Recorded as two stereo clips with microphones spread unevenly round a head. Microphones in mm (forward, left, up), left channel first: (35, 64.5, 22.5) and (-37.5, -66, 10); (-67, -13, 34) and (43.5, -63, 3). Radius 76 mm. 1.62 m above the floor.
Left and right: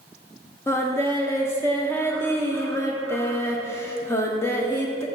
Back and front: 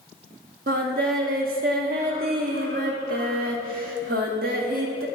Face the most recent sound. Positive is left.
turn(degrees=-10)